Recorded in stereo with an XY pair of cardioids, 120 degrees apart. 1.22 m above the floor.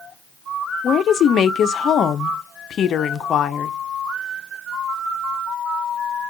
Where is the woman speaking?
50° left, 0.5 m.